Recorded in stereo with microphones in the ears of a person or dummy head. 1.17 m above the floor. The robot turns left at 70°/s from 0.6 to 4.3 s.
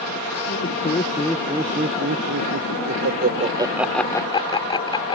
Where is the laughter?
50° left (ahead or behind); by 5.2 s 30° left (ahead or behind).